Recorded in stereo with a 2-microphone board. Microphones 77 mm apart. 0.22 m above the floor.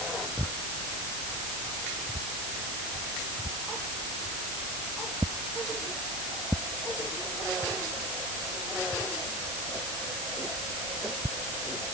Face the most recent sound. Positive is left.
No sound to turn to.